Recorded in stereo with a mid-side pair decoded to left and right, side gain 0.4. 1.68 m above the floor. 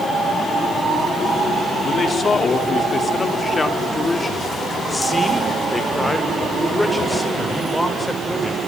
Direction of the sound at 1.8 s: 45° left.